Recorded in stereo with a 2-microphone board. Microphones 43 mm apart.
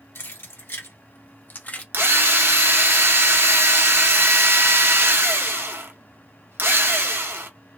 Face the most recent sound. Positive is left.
turn(degrees=-70)  # may be behind; listen again after turning